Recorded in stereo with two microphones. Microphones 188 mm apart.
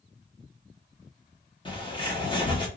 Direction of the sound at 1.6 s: 25° left (ahead or behind).